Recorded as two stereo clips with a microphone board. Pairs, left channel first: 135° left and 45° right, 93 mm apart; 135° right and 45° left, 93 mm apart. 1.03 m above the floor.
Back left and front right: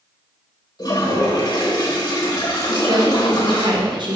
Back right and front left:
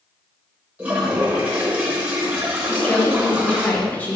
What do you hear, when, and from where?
0.8 s a toilet flushing: 110° left, 1.1 m
2.7 s a woman speaking: 65° right, 0.9 m